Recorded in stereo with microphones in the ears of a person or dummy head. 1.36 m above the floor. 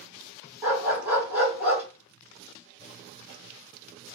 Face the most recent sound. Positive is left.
turn(degrees=-10)  # may be behind; listen again after turning